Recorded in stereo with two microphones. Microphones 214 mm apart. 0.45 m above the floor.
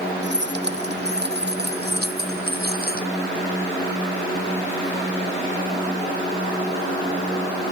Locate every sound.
0.2 s keys jangling: 55° right (ahead or behind); by 3.1 s 45° right (ahead or behind)